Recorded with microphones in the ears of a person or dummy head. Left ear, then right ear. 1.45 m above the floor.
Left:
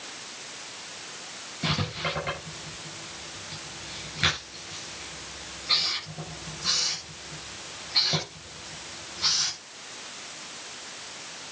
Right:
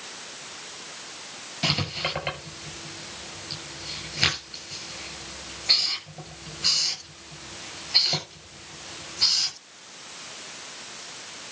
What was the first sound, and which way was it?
Writing, 45° right (ahead or behind).